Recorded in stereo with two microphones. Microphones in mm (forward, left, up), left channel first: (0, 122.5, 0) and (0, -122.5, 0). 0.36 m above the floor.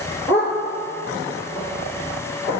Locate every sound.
0.3 s a dog barking: 5° left (ahead or behind), 3 m; by 2.5 s 10° right (ahead or behind), 4 m